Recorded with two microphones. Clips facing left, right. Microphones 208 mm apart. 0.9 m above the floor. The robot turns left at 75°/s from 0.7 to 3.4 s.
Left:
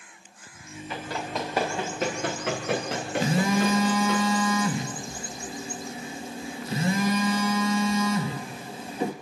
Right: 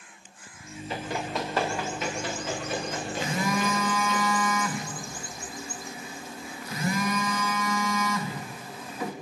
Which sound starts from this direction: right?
Running footsteps, at 0.9 s.